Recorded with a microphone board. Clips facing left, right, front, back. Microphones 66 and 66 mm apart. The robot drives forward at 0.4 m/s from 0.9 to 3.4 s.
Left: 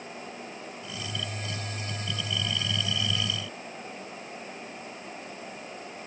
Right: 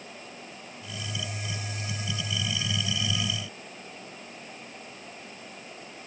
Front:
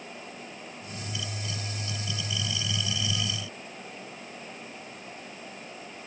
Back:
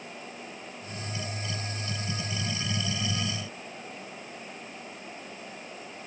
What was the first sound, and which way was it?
Only background noise.